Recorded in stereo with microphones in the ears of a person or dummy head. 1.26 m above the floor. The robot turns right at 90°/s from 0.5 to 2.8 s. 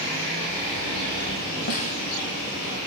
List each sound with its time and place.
1.7 s a snare drum: 45° left (ahead or behind), 1.8 m; by 2.0 s 20° left (ahead or behind), 1.8 m